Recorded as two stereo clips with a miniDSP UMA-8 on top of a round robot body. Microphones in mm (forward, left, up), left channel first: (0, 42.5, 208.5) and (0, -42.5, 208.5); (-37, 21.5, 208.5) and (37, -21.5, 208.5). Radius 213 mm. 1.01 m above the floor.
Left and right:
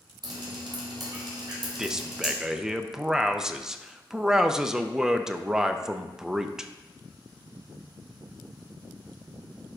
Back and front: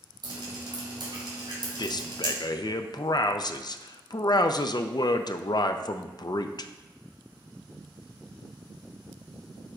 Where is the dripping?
60° right, 3 m.